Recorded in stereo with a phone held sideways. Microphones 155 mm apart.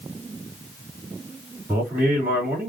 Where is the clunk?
No clunk in this recording.